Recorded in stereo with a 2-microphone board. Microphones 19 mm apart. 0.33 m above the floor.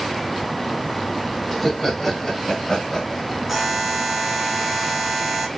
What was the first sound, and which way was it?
Laughter, 10° left (ahead or behind).